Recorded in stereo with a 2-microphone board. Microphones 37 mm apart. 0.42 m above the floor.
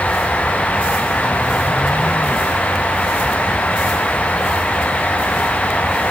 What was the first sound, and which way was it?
Only background noise.